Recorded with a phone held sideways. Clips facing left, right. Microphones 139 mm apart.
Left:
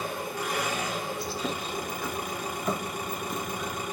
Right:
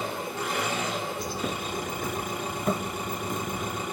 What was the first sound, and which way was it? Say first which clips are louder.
An engine running: right 1 dB; 25° right (ahead or behind).